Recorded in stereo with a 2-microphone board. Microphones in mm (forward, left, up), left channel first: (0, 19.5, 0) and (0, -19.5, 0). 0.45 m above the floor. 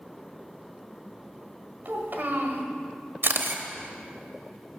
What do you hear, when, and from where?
1.9 s a child speaking: 55° right (ahead or behind), 1.6 m
3.2 s a camera shutter: 70° right (ahead or behind), 0.7 m